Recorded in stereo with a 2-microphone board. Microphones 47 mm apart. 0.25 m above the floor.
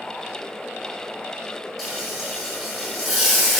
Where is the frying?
5° left (ahead or behind), 1.4 m.